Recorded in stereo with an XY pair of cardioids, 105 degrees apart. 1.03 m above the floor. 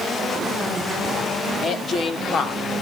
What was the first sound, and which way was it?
A woman speaking, 50° left.